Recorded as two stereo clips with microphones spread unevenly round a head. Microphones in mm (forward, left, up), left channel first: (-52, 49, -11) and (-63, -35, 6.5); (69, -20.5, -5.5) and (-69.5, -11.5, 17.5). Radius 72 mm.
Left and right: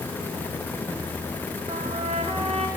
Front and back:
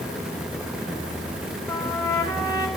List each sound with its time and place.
1.7 s a trumpet: 65° right, 3 m